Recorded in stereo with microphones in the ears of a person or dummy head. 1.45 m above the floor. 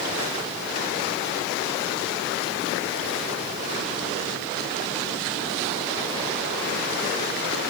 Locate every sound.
Only background noise.